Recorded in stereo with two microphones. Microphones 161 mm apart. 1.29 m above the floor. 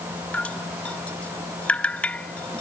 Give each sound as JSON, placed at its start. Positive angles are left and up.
{"t": 0.3, "sound": "dripping", "side_deg": 10}